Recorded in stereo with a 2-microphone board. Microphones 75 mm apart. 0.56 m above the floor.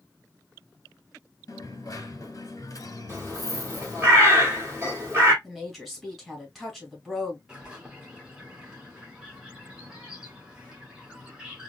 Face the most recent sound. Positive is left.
turn(degrees=-10)  # may be behind; listen again after turning